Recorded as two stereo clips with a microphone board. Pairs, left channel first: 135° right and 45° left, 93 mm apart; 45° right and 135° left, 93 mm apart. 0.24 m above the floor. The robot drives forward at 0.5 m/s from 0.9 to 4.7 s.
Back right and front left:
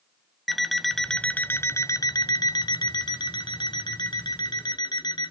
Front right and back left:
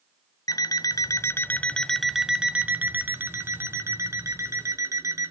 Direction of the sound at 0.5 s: 45° right.